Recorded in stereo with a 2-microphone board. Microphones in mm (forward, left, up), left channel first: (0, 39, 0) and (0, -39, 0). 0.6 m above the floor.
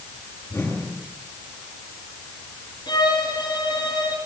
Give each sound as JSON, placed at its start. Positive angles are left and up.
{"t": 0.5, "sound": "a whoosh", "side_deg": 35, "distance_m": 9.5}
{"t": 2.9, "sound": "a violin", "side_deg": 70, "distance_m": 9.0}